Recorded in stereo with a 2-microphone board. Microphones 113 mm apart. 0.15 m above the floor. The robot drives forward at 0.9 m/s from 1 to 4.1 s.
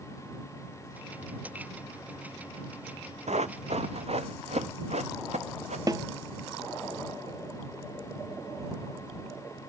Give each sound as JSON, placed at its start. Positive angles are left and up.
{"t": 3.3, "sound": "running footsteps", "side_deg": -80, "distance_m": 0.8}
{"t": 5.9, "sound": "a snare drum", "side_deg": -35, "distance_m": 0.5}